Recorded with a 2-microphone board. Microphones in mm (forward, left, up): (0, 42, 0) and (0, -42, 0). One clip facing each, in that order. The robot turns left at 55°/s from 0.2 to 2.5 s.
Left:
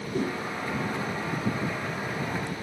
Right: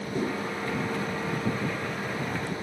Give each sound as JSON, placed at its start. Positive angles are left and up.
{"t": 0.1, "sound": "a whoosh", "side_deg": 10, "distance_m": 2.0}